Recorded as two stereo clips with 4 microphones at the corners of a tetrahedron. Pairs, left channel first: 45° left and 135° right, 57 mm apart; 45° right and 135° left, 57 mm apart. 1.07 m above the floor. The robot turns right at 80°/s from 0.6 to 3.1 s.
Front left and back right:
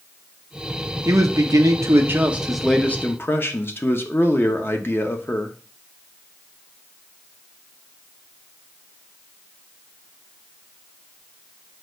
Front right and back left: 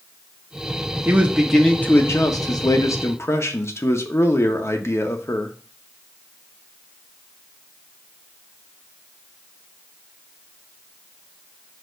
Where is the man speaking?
170° right, 0.8 m; by 5.5 s 5° right, 0.8 m.